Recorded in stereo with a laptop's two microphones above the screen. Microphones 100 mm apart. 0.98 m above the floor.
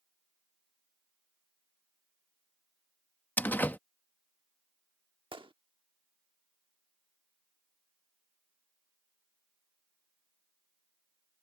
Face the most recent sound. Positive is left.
turn(degrees=-65)  # may be behind; listen again after turning